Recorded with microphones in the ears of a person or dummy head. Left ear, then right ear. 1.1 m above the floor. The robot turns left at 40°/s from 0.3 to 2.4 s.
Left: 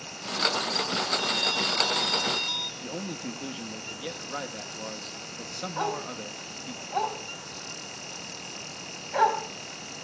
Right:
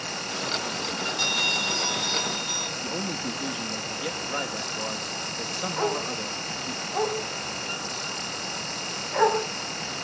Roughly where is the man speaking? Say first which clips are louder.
Right 6 dB; centre.